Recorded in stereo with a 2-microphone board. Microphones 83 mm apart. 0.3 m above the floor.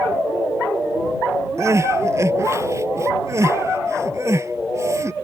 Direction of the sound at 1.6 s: 35° right (ahead or behind).